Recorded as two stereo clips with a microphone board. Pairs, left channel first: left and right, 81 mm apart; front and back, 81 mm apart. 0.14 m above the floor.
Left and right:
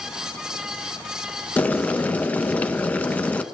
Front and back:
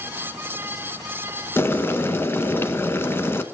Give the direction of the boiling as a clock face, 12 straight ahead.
11 o'clock.